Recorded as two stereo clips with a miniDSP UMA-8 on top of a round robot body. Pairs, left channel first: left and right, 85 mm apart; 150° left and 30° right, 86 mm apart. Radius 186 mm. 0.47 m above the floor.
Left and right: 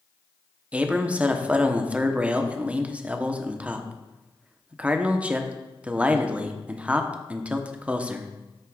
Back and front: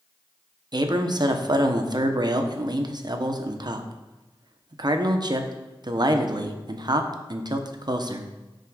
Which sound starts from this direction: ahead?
A man speaking, at 0.7 s.